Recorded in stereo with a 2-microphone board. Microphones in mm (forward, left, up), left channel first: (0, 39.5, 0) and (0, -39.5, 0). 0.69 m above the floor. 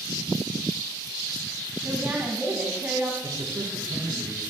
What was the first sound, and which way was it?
A woman speaking, 20° right (ahead or behind).